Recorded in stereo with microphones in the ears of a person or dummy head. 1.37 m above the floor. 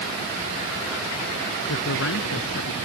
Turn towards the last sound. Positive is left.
turn(degrees=65)  # may be behind; listen again after turning